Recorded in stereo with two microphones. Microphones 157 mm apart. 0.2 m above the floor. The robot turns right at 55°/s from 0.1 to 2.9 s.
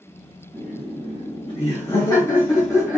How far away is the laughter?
About 2.0 m.